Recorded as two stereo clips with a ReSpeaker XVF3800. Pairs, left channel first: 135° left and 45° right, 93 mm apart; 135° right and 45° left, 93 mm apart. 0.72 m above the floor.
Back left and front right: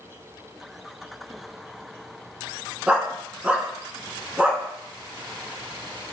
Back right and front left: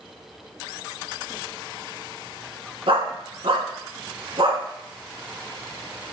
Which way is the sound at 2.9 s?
30° left.